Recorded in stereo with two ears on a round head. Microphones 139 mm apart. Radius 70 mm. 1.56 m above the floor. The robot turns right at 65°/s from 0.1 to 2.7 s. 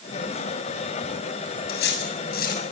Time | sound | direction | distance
1.7 | cutlery clinking | 65° left | 7.5 m